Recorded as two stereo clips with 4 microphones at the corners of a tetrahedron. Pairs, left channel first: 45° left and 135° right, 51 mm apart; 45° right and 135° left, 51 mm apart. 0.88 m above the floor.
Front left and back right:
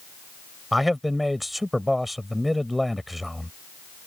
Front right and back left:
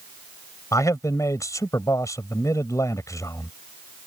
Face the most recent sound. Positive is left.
turn(degrees=-50)